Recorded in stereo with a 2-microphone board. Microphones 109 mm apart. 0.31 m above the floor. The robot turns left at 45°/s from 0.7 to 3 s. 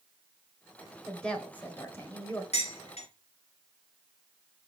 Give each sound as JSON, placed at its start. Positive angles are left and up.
{"t": 1.1, "sound": "a woman speaking", "side_deg": 5, "distance_m": 1.5}
{"t": 2.5, "sound": "dishes clattering", "side_deg": 75, "distance_m": 2.5}